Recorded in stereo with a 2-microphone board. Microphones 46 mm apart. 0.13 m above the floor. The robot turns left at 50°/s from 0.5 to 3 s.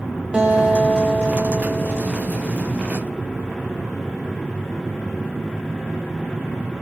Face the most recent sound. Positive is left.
turn(degrees=80)